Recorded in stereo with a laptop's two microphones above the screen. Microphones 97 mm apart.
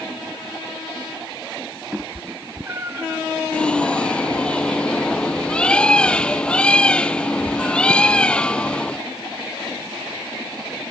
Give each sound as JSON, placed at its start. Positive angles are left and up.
{"t": 1.9, "sound": "a cat meowing", "side_deg": -20}
{"t": 3.5, "sound": "a bird", "side_deg": 10}